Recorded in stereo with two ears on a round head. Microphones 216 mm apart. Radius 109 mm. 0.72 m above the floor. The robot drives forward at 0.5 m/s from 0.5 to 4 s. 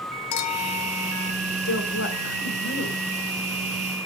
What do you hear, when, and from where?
0.3 s a clink: 80° left, 1.3 m
1.6 s a woman speaking: 65° left (ahead or behind), 2.5 m; by 3.0 s 50° left (ahead or behind), 3 m